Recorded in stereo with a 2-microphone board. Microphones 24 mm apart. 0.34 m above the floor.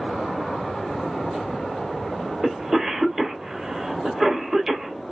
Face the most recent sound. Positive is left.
turn(degrees=-25)  # may be behind; listen again after turning